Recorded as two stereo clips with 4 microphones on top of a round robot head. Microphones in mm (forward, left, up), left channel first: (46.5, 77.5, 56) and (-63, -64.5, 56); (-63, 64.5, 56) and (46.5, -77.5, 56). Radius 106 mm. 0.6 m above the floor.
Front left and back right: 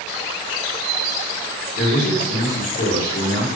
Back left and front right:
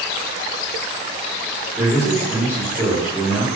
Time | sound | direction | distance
1.8 | a man speaking | 30° left | 1.2 m